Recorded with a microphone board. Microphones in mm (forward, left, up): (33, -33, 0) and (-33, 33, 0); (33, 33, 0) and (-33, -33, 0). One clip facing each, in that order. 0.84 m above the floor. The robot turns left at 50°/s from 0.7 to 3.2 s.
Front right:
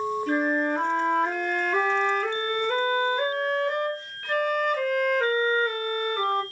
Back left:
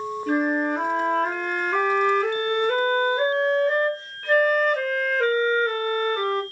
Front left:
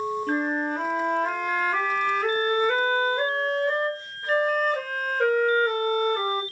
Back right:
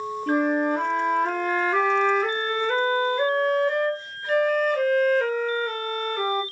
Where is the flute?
150° right, 2.5 m; by 6.4 s 85° left, 2.5 m.